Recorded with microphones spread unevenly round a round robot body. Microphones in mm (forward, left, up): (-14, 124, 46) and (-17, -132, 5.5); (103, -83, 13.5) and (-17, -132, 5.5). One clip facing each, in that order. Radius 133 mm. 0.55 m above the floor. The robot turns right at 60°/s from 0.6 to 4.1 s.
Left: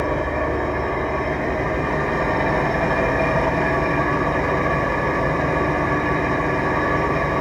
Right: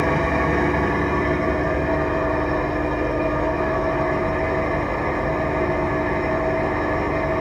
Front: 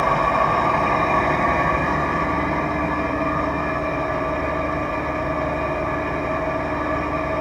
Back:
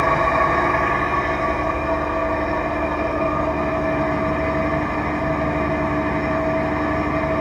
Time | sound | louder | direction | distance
0.0 | an engine running | right 2 dB, back 1 dB | 55° right | 0.9 m